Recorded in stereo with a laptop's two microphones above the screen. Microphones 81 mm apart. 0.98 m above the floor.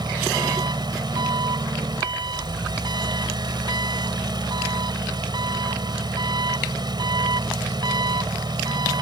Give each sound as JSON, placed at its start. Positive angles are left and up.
{"t": 0.0, "sound": "an engine running", "side_deg": -65}